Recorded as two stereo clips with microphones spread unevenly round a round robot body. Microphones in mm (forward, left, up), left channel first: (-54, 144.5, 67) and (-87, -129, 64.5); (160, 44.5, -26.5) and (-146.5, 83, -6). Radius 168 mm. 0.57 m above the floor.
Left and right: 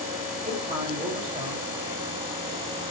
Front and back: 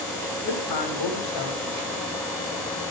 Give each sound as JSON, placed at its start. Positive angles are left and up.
{"t": 0.4, "sound": "a man speaking", "azimuth_deg": -25, "distance_m": 3.5}